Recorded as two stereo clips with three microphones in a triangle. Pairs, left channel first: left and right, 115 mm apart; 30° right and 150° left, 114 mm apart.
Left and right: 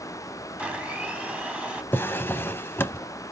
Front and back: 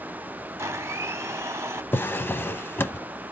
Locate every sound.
0.6 s a blender: 160° right, 0.8 m
1.9 s a drawer: 30° left, 0.6 m